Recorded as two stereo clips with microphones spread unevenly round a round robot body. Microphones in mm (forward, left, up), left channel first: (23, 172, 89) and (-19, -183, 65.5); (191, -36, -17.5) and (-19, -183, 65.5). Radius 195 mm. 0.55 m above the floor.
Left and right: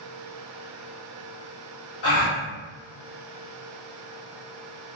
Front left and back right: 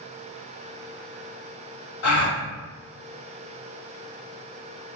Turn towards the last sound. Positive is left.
turn(degrees=30)